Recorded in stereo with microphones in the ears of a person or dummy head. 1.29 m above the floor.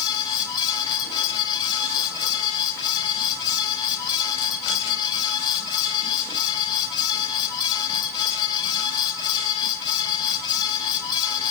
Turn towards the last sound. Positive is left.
turn(degrees=25)  # may be behind; listen again after turning